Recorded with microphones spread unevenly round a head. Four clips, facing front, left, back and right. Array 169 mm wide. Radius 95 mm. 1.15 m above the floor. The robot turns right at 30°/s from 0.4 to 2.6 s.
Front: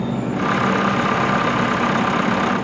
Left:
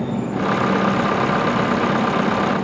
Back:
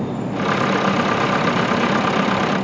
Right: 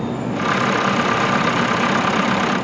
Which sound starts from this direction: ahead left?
An insect, at 0.0 s.